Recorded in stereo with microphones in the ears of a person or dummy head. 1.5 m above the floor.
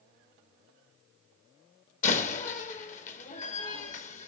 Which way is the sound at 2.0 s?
50° left (ahead or behind).